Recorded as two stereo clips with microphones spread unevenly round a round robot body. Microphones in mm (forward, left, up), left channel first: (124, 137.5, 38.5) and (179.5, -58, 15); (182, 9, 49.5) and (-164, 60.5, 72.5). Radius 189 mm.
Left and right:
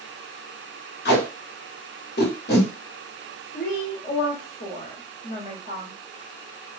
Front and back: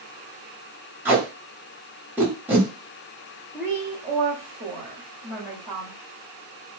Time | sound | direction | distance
1.1 | tape being pulled | 85° left | 1.3 m
3.5 | a woman speaking | 85° left | 1.4 m